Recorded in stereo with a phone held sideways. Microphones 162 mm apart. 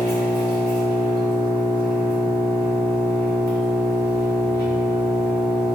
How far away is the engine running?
About 1.4 m.